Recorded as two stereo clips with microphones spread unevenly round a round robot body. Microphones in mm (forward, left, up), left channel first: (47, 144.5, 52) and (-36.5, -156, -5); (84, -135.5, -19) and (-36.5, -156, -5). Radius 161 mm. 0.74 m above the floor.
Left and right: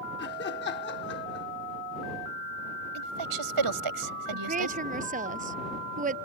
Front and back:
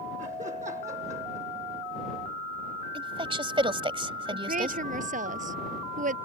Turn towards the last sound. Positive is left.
turn(degrees=-175)